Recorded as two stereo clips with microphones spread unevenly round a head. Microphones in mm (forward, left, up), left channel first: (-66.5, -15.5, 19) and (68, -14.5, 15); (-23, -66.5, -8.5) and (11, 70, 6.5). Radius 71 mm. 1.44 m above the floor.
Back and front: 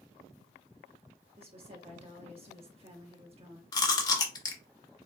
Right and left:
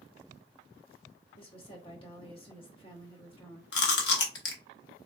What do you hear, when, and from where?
1.4 s a woman speaking: 50° right, 1.2 m
3.7 s chewing: 115° right, 0.9 m